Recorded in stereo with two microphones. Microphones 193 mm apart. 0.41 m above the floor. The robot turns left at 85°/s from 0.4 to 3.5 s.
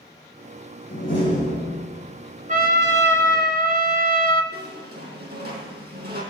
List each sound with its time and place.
0.9 s a door slam: 105° left, 6.5 m; by 1.8 s 25° left, 6.5 m
2.5 s a trumpet: 45° right, 1.4 m; by 4.4 s 130° right, 1.4 m
4.5 s a squeak: 55° right (ahead or behind), 5.5 m